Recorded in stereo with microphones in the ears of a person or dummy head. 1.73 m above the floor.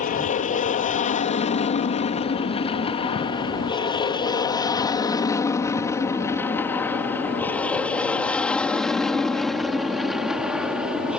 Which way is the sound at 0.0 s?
40° left (ahead or behind).